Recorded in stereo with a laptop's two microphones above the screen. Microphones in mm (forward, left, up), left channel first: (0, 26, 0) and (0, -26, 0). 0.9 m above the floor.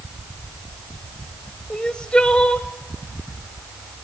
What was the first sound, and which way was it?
Crying, 15° left (ahead or behind).